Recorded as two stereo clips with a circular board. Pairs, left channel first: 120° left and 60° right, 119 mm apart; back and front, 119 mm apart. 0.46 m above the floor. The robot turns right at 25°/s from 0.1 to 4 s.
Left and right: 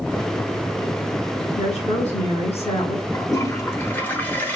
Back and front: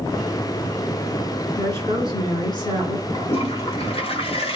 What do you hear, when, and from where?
1.6 s a woman speaking: 110° left, 3 m; by 3.0 s 145° left, 3 m
3.1 s a toilet flushing: 170° left, 0.9 m; by 4.6 s 170° right, 0.9 m